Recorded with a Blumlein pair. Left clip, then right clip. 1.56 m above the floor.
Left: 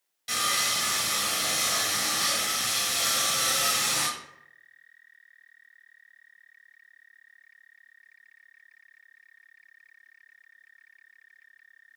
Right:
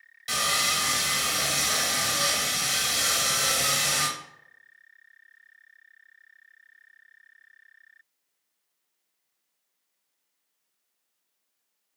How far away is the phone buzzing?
No phone buzzing in this recording.